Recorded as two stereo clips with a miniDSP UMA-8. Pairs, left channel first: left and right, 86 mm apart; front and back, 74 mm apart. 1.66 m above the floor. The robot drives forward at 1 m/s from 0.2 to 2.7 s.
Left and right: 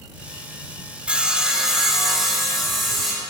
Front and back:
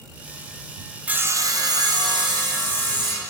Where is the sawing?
145° right, 0.5 m; by 3.2 s 175° right, 1.9 m.